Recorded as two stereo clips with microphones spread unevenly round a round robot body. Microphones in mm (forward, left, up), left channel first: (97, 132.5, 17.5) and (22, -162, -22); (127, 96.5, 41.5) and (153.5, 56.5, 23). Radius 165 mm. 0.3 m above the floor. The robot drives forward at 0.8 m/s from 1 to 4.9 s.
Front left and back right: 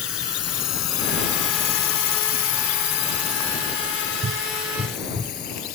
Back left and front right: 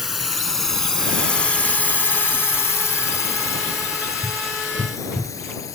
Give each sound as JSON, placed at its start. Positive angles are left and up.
{"t": 0.0, "sound": "a drone", "azimuth_deg": 30}